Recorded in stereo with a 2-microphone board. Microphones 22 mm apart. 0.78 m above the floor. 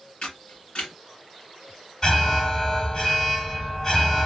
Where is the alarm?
40° left (ahead or behind), 2.5 m.